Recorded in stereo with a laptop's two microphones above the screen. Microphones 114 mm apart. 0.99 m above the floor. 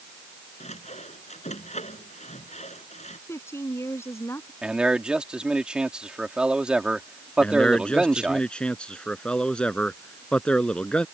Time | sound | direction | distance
0.6 | sawing | 80° left | ?
3.3 | a woman speaking | 25° left (ahead or behind) | ?
4.6 | a man speaking | 10° right (ahead or behind) | ?
7.4 | a man speaking | 10° left (ahead or behind) | ?